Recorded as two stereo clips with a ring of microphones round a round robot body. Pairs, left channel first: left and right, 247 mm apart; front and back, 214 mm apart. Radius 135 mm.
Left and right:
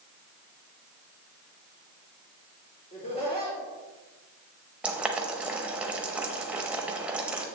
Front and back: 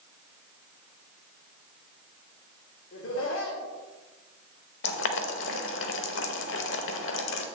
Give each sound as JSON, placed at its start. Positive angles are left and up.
{"t": 2.9, "sound": "laughter", "azimuth_deg": 25, "distance_m": 2.5}
{"t": 4.8, "sound": "boiling", "azimuth_deg": -5, "distance_m": 0.7}